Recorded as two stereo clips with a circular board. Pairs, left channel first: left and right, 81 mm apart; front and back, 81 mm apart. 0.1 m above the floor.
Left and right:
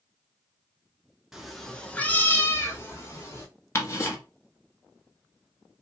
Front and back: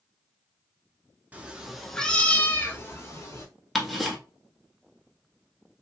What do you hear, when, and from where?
1.3 s a cat meowing: 165° right, 0.6 m; by 3.5 s 45° left, 1.1 m
3.8 s ticking: 90° left, 0.9 m